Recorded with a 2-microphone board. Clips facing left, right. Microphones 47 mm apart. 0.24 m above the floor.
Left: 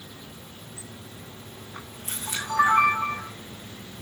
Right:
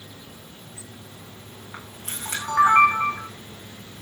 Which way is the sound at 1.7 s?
65° right (ahead or behind).